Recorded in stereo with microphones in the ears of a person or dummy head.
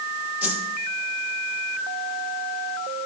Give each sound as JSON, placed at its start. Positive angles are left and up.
{"t": 0.4, "sound": "a whoosh", "side_deg": -5, "distance_m": 1.3}